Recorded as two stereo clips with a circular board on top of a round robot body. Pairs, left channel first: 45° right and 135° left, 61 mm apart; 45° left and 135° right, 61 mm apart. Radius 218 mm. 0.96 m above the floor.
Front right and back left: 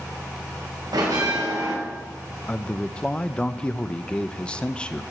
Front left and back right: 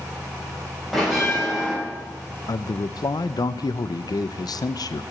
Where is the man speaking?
30° left, 0.7 m.